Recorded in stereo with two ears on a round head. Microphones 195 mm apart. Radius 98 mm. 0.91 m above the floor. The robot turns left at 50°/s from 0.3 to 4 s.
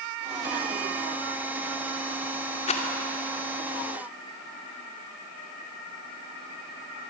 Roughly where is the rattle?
Left.